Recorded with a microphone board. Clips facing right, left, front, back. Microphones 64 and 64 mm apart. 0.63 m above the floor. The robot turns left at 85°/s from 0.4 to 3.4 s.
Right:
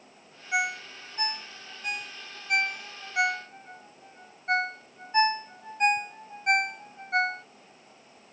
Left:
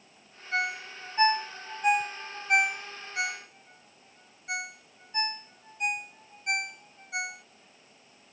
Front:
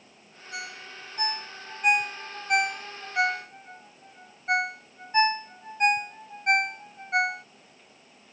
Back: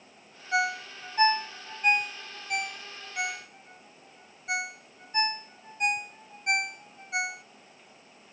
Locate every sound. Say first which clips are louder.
0.5 s a ringtone: right 2 dB, back 11 dB; 165° right; by 7.4 s 50° right